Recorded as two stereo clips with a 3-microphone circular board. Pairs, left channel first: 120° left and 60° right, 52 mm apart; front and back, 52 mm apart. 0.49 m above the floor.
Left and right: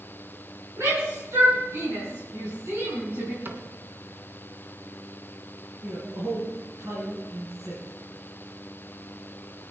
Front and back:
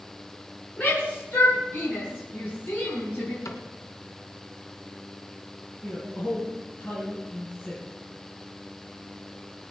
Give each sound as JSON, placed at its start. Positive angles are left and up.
{"t": 0.8, "sound": "a shout", "azimuth_deg": -45, "distance_m": 5.0}
{"t": 3.5, "sound": "a cupboard door", "azimuth_deg": -10, "distance_m": 1.9}
{"t": 5.8, "sound": "a man speaking", "azimuth_deg": -50, "distance_m": 5.0}